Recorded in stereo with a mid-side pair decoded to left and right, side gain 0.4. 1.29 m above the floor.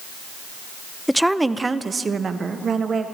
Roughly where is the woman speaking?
Ahead.